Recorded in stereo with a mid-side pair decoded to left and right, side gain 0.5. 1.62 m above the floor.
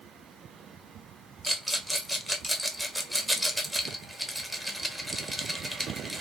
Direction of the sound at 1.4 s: 5° right.